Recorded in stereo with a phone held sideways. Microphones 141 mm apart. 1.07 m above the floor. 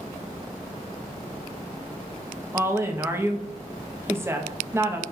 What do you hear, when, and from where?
2.5 s a woman speaking: 20° right (ahead or behind), 1.1 m